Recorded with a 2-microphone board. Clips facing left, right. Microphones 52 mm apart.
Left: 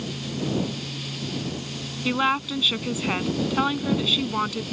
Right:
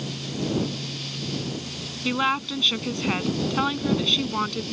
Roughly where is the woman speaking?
Centre.